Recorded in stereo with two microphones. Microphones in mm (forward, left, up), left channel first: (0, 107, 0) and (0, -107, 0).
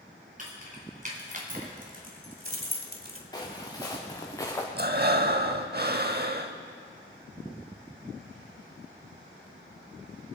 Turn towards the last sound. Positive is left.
turn(degrees=-50)  # may be behind; listen again after turning